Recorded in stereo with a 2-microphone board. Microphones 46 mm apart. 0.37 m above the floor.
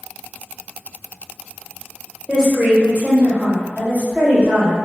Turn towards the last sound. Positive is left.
turn(degrees=-45)  # may be behind; listen again after turning